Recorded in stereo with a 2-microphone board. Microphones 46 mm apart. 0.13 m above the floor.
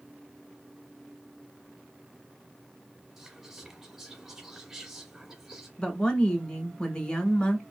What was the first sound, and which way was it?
Whispering, 10° right (ahead or behind).